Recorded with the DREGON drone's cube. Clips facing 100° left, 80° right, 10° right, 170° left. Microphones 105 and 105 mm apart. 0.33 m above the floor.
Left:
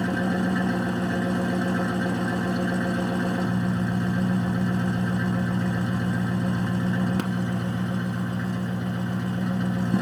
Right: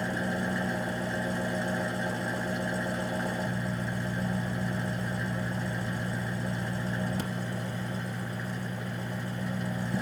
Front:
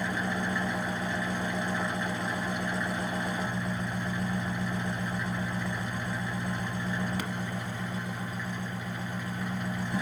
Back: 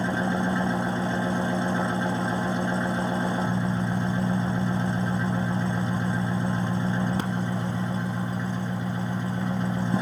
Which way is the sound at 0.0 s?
110° left.